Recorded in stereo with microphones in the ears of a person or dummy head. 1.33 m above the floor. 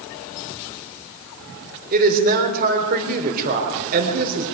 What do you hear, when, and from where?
1.9 s a woman speaking: 45° right (ahead or behind), 3.5 m